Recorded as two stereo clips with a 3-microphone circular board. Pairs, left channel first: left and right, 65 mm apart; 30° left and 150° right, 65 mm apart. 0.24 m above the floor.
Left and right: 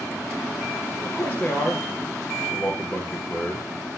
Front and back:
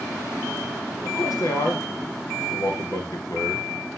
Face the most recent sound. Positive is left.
turn(degrees=20)